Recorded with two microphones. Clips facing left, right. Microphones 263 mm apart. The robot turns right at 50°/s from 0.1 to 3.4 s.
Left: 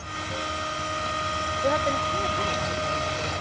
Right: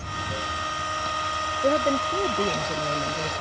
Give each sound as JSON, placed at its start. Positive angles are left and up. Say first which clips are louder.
{"t": 0.0, "sound": "running water", "louder": "even", "azimuth_deg": -25}
{"t": 1.6, "sound": "a woman speaking", "louder": "right 4 dB", "azimuth_deg": -150}